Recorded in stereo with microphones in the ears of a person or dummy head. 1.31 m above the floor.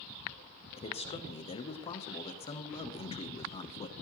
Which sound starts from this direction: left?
A man speaking, at 0.8 s.